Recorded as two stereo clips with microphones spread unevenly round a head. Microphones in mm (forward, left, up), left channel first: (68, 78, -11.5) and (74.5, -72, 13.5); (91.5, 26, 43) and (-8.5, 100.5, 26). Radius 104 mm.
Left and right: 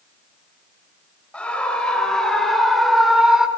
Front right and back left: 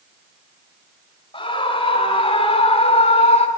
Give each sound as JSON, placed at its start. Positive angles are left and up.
{"t": 1.3, "sound": "a scream", "azimuth_deg": 10, "distance_m": 6.0}